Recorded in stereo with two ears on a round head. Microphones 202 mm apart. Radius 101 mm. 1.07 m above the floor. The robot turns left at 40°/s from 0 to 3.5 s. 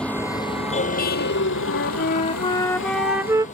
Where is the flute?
55° left; by 3.5 s 15° right.